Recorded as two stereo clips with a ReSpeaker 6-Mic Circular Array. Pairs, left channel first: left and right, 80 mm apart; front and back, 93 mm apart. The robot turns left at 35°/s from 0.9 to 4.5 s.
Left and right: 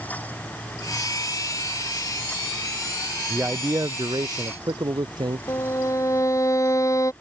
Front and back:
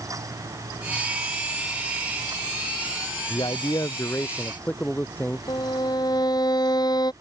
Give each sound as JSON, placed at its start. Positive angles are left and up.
{"t": 3.3, "sound": "a man speaking", "azimuth_deg": -25}
{"t": 5.5, "sound": "a violin", "azimuth_deg": 40}